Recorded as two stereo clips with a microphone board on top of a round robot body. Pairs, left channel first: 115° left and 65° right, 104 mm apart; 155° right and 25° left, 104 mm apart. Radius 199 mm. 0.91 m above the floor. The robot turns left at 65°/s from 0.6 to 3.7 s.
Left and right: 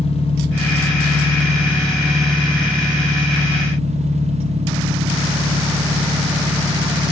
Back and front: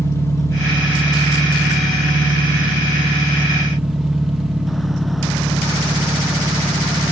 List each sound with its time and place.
0.0 s an engine running: 140° left, 1.6 m; by 7.1 s 65° right, 1.6 m